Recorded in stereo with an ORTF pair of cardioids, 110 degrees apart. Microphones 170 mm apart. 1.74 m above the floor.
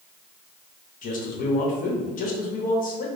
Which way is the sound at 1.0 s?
55° left.